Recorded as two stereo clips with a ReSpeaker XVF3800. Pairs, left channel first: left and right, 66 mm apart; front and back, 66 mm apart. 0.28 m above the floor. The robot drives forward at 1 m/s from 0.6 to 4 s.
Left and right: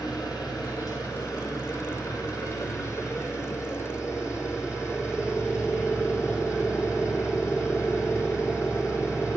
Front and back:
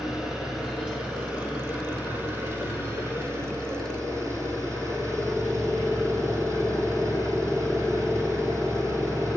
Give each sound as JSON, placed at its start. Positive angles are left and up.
{"t": 0.0, "sound": "an engine running", "azimuth_deg": 95, "distance_m": 4.0}